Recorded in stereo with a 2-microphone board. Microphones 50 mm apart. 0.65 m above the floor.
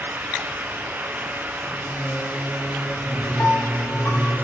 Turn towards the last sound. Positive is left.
turn(degrees=50)  # may be behind; listen again after turning